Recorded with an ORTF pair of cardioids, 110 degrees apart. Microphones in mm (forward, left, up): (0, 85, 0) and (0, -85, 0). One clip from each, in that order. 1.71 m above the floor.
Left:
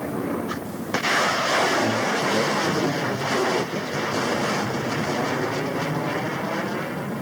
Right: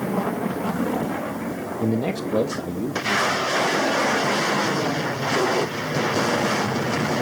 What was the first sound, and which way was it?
A man speaking, 40° right.